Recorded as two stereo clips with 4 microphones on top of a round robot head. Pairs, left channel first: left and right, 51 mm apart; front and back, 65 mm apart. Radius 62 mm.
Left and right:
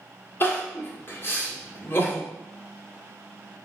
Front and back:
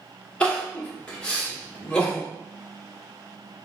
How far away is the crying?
About 1.7 m.